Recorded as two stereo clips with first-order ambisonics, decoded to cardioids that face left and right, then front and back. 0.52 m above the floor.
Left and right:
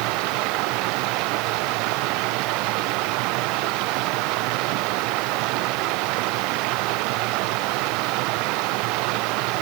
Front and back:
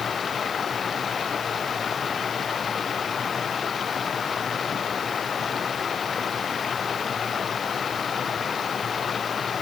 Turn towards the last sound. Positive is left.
turn(degrees=-65)